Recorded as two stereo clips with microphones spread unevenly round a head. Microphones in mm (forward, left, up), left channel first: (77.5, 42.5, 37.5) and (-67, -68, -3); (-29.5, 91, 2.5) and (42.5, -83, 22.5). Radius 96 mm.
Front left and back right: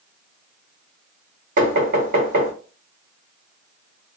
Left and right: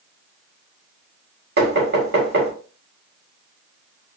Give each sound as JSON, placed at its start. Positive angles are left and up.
{"t": 1.6, "sound": "knocking", "azimuth_deg": -100, "distance_m": 2.0}